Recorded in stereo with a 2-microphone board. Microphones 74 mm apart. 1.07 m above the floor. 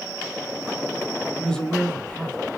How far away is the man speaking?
About 6.5 m.